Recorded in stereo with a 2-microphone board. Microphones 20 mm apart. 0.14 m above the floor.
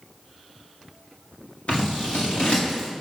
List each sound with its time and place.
1.7 s scissors: 80° left, 5 m